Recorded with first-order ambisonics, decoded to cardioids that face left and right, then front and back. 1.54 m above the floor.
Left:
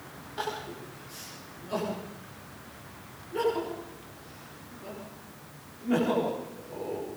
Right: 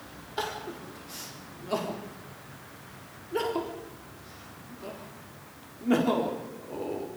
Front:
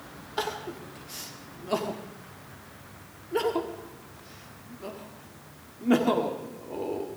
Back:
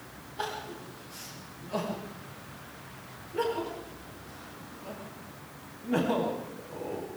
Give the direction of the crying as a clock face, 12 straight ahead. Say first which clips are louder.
Right 1 dB, front 4 dB; 1 o'clock.